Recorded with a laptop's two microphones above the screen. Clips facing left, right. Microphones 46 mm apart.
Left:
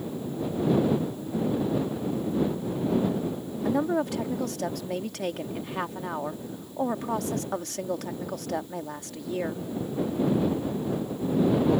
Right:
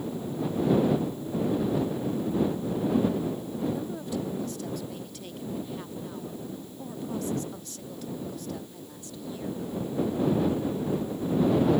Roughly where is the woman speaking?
Left.